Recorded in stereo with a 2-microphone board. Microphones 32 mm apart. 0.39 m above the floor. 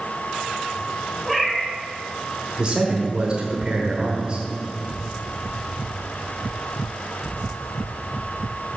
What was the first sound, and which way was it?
A cat meowing, 5° left (ahead or behind).